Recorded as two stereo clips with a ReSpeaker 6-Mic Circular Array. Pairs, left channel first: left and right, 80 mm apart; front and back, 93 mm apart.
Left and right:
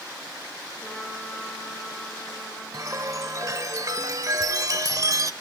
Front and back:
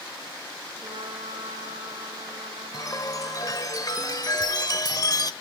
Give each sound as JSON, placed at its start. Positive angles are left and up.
{"t": 0.8, "sound": "a trumpet", "azimuth_deg": 175, "distance_m": 5.5}
{"t": 2.7, "sound": "a chime", "azimuth_deg": -45, "distance_m": 0.9}